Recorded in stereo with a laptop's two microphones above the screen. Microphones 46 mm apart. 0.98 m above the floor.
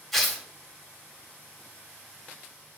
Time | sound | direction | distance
0.1 | tearing paper | 10° left (ahead or behind) | 2.5 m